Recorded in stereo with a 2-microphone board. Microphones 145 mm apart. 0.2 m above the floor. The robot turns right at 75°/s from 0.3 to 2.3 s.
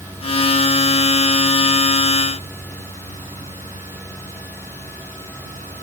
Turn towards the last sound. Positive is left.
No sound to turn to.